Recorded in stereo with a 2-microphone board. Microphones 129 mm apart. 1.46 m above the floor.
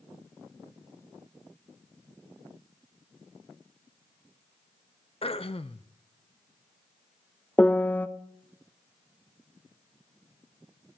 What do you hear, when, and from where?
5.2 s throat clearing: 50° left (ahead or behind), 0.7 m
7.6 s a piano: 15° left (ahead or behind), 0.7 m